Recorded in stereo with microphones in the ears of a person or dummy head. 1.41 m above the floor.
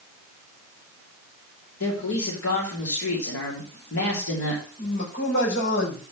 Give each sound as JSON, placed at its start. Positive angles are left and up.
{"t": 1.8, "sound": "a man speaking", "side_deg": 85, "distance_m": 3.0}
{"t": 4.8, "sound": "a man speaking", "side_deg": 70, "distance_m": 7.5}